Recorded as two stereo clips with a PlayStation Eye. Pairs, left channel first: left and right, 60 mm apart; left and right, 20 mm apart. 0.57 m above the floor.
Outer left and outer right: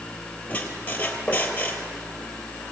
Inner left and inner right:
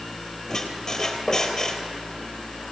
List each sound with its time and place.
0.5 s a squeak: 25° left (ahead or behind), 3 m